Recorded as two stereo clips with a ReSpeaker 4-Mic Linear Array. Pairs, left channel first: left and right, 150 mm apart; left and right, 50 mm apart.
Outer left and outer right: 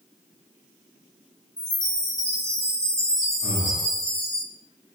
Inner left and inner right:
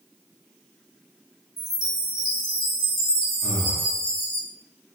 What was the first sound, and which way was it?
A chime, 5° left (ahead or behind).